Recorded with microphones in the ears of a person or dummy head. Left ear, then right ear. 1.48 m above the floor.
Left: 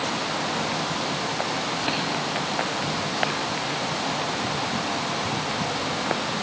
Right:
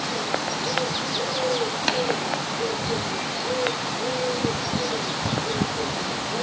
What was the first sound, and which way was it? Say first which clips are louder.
Tapping: right 4 dB; 55° right (ahead or behind).